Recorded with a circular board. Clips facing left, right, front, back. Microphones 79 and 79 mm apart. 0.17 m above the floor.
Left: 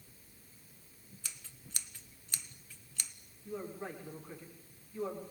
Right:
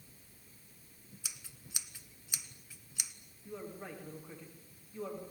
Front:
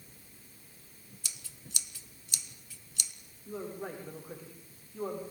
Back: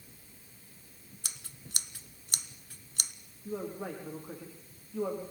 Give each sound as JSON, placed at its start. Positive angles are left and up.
{"t": 1.2, "sound": "scissors", "azimuth_deg": -170, "distance_m": 1.1}
{"t": 3.5, "sound": "a man speaking", "azimuth_deg": -175, "distance_m": 9.5}